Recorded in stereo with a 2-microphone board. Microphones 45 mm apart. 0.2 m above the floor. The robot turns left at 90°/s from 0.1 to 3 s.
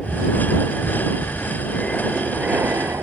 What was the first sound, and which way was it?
An aircraft, 175° left.